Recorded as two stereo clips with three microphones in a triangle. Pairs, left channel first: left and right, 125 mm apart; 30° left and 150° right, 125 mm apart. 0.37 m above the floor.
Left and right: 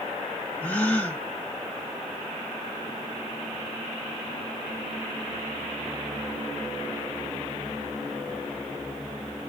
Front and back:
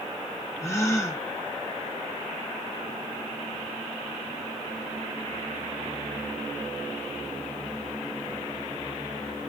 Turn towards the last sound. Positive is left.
turn(degrees=35)